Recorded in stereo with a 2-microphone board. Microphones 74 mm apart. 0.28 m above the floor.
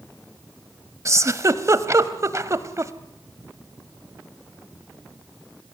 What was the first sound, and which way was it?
A giggle, 40° right (ahead or behind).